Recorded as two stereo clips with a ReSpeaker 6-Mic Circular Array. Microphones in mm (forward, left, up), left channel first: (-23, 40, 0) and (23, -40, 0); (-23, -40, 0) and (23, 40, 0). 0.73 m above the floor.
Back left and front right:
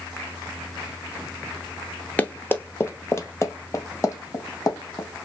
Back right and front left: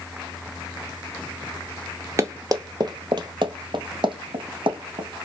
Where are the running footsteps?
60° left, 0.8 m; by 5.1 s 70° left, 2.5 m.